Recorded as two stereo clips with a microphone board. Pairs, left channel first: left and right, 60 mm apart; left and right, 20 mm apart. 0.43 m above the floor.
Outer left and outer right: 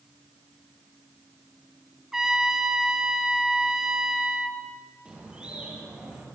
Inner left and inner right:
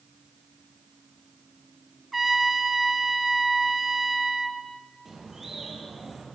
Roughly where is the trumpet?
Centre.